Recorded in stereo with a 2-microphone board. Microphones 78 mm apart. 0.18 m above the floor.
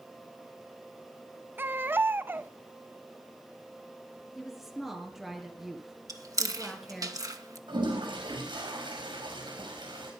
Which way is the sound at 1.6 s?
25° right (ahead or behind).